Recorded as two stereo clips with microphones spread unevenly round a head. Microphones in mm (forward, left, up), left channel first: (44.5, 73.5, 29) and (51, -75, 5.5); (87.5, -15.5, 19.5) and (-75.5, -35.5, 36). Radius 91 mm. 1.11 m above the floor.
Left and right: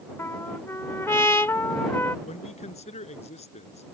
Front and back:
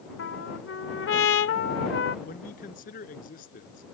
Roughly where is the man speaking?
Ahead left.